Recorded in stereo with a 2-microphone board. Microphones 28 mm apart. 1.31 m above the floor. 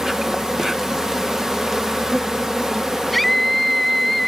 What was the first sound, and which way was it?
An insect, 15° right (ahead or behind).